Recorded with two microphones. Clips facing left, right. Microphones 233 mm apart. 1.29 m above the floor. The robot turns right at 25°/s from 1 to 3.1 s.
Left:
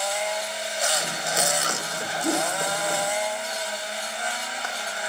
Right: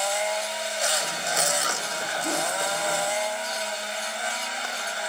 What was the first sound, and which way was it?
A whoosh, 25° left (ahead or behind).